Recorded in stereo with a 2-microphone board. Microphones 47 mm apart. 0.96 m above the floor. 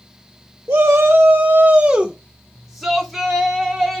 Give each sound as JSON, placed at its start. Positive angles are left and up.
{"t": 0.7, "sound": "a shout", "side_deg": -60, "distance_m": 0.5}